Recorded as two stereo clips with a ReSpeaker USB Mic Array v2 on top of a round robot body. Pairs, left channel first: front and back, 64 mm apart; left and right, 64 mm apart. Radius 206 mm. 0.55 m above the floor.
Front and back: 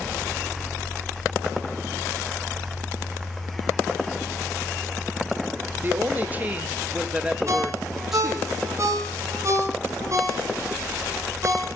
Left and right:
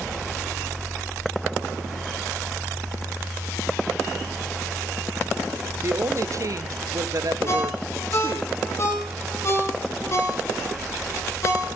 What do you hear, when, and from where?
5.8 s a woman speaking: 125° right, 3 m; by 8.5 s 90° right, 3 m
7.5 s a ringtone: 135° left, 6 m